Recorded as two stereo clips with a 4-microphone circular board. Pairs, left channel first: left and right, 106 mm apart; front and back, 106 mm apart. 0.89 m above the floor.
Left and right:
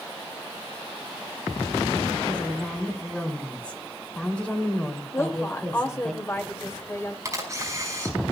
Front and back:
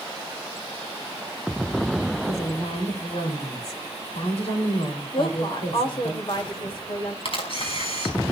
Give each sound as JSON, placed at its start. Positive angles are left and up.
{"t": 2.2, "sound": "a woman speaking", "azimuth_deg": 10, "distance_m": 3.0}
{"t": 5.1, "sound": "a woman speaking", "azimuth_deg": 30, "distance_m": 1.9}
{"t": 7.2, "sound": "a camera shutter", "azimuth_deg": -30, "distance_m": 5.0}